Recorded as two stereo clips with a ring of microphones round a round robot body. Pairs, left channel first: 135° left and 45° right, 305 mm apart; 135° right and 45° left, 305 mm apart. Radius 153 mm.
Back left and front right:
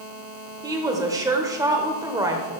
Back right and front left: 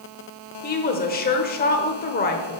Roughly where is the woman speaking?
Behind right.